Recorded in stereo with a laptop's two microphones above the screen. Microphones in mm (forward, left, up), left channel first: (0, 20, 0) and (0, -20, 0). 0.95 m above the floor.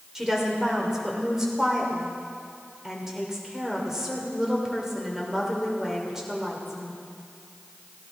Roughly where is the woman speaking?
Centre.